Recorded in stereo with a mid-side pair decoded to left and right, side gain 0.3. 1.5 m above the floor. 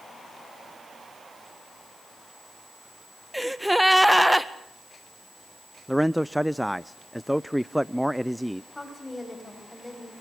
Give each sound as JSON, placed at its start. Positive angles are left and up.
{"t": 3.3, "sound": "a gasp", "azimuth_deg": -5, "distance_m": 1.8}
{"t": 5.9, "sound": "a man speaking", "azimuth_deg": -5, "distance_m": 0.6}
{"t": 8.7, "sound": "a woman speaking", "azimuth_deg": 15, "distance_m": 9.5}